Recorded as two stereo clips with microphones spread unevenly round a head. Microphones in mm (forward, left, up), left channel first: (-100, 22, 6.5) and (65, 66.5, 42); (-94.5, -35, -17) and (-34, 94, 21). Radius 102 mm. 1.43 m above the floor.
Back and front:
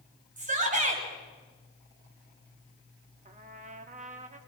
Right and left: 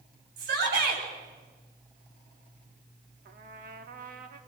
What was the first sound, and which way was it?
A shout, 60° left.